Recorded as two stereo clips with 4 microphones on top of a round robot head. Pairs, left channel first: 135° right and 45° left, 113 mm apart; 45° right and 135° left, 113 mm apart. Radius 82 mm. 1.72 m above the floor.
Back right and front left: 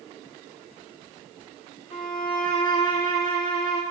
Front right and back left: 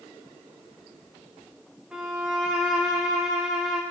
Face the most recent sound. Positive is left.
turn(degrees=-150)